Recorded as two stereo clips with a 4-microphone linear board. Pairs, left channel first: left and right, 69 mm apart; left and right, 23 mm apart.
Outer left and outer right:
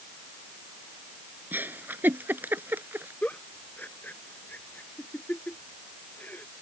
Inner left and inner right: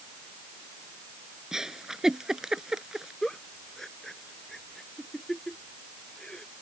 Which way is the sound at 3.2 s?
25° left (ahead or behind).